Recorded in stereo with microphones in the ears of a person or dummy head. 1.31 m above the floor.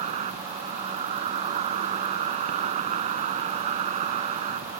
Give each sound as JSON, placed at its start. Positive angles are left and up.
{"t": 0.0, "sound": "an insect", "side_deg": -40}